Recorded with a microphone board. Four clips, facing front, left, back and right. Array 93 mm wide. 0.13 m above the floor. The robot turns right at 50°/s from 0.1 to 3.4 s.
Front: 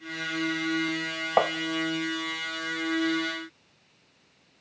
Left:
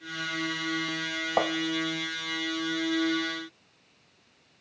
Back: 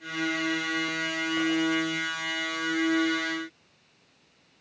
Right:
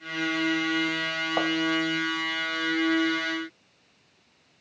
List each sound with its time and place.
1.4 s tapping: 10° left, 0.7 m; by 1.5 s 15° left, 0.7 m